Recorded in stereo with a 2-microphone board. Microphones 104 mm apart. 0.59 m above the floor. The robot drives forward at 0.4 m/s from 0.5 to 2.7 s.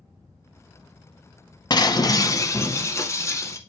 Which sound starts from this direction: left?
Breaking glass, at 1.7 s.